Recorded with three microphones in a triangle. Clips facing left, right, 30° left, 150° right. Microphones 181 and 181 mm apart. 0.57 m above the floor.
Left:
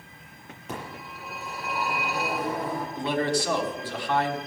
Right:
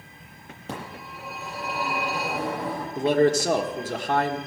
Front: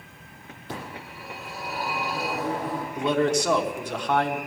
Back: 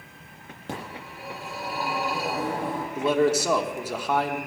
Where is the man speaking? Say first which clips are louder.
Right 8 dB, back 1 dB; 70° right, 1.3 m.